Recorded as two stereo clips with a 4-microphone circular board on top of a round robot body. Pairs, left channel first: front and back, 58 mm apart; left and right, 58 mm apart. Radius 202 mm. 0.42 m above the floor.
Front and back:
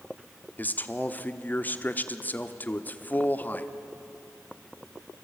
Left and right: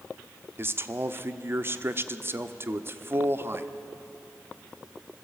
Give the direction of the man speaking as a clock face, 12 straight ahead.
2 o'clock.